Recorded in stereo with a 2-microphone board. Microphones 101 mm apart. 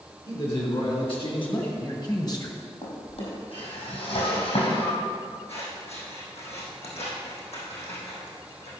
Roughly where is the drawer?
Left.